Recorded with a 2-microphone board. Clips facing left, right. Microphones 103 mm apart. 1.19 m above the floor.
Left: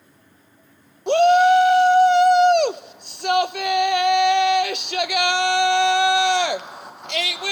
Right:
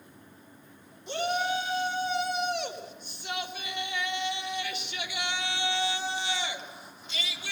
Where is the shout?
70° left (ahead or behind), 0.5 m.